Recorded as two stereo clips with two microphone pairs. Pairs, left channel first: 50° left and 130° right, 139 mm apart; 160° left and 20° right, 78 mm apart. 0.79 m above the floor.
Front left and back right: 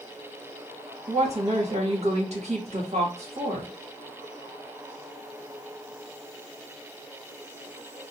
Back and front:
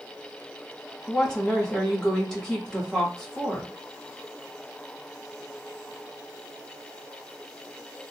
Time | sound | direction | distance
1.1 | a woman speaking | 120° right | 1.4 m